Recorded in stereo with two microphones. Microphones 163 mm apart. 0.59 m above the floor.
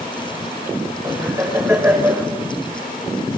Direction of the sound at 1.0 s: 20° right (ahead or behind).